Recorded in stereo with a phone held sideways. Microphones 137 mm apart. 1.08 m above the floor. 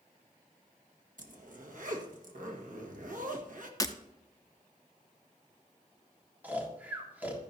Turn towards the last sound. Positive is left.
turn(degrees=-10)  # may be behind; listen again after turning